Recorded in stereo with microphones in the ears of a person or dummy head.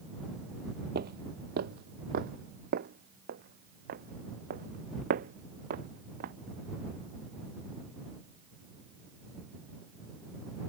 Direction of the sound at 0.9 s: 50° right (ahead or behind).